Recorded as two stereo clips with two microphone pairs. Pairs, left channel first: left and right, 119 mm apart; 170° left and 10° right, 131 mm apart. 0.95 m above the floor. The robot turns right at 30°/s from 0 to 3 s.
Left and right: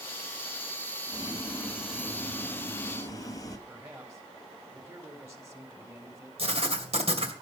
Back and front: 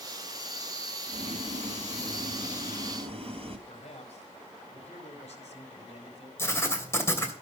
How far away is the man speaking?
About 4 m.